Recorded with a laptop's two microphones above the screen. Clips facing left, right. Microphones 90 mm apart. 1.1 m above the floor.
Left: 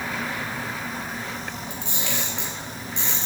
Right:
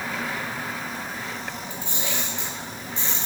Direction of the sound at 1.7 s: 80° left.